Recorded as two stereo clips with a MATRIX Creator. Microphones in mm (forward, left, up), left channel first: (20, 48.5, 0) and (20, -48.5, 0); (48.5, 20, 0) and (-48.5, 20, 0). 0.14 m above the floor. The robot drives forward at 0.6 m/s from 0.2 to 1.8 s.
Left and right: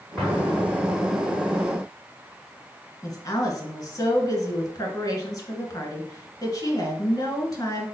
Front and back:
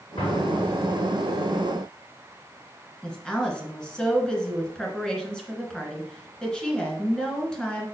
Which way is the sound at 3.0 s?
75° left.